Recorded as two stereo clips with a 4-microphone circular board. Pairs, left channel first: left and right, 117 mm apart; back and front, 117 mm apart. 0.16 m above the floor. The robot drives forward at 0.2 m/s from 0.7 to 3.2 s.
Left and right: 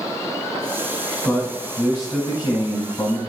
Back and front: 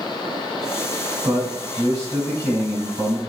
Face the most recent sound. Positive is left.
turn(degrees=65)